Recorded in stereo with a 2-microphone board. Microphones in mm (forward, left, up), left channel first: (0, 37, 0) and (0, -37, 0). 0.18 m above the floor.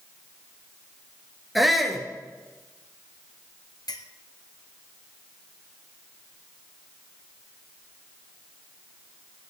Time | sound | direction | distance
1.6 | a shout | centre (ahead or behind) | 3.5 m
3.9 | a clink | 70° left (ahead or behind) | 1.7 m